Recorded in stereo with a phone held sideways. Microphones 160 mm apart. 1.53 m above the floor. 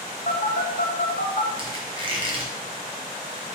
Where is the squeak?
35° right (ahead or behind), 0.9 m.